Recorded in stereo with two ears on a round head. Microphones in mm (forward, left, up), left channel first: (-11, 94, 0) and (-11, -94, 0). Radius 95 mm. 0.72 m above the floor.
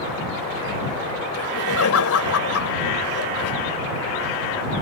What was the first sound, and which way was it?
Laughter, 75° left (ahead or behind).